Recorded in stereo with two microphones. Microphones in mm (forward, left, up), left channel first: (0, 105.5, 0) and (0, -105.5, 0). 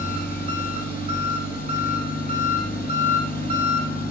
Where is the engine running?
40° left (ahead or behind), 2 m.